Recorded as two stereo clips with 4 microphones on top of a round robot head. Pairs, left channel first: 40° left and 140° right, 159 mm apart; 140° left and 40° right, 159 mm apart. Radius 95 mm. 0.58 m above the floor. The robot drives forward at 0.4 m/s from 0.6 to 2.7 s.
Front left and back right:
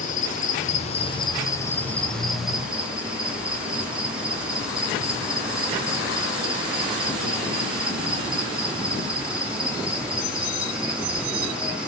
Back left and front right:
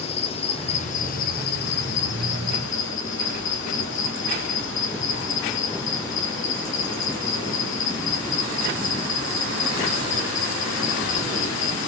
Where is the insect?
85° left, 0.8 m; by 11.9 s 135° left, 1.1 m.